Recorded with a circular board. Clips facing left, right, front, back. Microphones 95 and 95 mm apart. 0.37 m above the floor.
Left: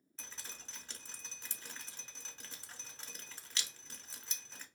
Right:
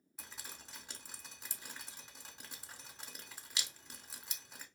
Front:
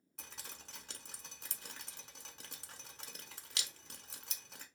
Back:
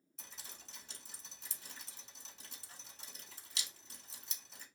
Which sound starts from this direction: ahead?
Dripping, at 0.2 s.